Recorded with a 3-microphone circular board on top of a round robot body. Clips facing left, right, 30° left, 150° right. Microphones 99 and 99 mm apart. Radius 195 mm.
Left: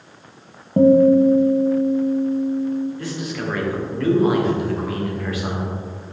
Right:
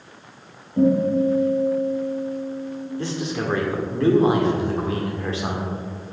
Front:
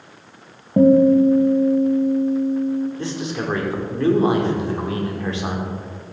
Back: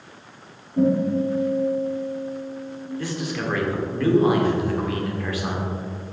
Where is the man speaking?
30° right, 1.9 m.